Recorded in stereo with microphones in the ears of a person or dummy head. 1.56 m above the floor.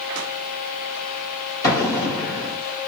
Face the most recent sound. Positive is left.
turn(degrees=25)  # may be behind; listen again after turning